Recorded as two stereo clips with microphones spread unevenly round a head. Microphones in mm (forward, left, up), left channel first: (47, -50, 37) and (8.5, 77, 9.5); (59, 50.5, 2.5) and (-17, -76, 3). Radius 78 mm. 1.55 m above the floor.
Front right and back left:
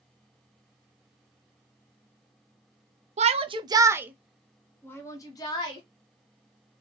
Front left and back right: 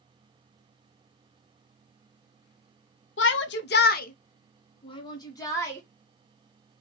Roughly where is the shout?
Left.